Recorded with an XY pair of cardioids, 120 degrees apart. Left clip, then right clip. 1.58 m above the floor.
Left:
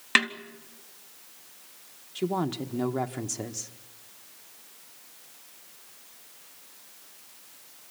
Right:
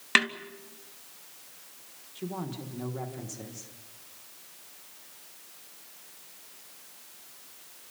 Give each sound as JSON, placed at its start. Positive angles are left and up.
{"t": 0.1, "sound": "a snare drum", "azimuth_deg": 5, "distance_m": 2.5}
{"t": 2.1, "sound": "a woman speaking", "azimuth_deg": 55, "distance_m": 1.4}